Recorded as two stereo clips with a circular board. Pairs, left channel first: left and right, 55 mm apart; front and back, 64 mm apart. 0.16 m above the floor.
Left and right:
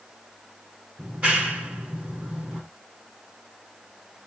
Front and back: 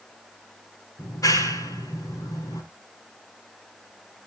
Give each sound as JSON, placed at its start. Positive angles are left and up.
{"t": 1.0, "sound": "a clap", "azimuth_deg": -35, "distance_m": 6.5}